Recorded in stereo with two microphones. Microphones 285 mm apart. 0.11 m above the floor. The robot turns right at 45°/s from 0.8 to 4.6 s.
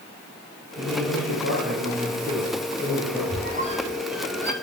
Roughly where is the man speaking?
Behind right.